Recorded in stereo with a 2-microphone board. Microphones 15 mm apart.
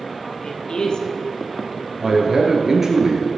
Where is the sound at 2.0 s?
20° right (ahead or behind), 2 m.